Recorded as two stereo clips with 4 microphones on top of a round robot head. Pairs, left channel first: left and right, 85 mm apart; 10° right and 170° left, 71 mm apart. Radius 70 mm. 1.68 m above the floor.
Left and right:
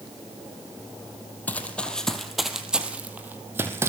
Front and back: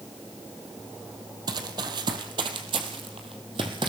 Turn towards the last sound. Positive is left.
turn(degrees=-145)